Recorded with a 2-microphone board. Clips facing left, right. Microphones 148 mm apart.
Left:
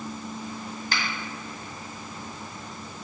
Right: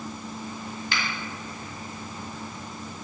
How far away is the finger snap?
About 1.6 m.